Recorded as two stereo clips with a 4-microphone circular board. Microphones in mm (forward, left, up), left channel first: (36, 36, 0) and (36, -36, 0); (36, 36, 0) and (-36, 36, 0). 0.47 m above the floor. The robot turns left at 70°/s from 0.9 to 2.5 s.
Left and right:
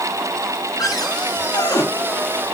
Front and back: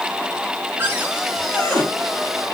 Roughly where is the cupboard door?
Behind left.